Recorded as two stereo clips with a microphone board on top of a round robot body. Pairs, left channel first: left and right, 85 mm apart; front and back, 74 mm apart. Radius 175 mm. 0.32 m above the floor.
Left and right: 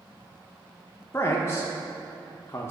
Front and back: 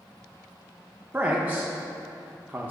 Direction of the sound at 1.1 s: 125° left.